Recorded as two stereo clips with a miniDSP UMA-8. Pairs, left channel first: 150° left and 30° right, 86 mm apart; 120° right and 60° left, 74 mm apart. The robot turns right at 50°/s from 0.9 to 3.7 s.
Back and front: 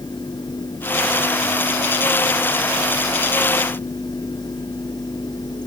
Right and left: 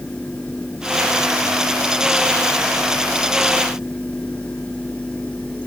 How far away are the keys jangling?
I don't hear keys jangling.